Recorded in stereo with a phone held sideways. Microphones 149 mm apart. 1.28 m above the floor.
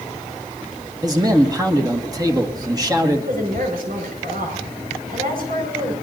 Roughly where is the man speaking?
Right.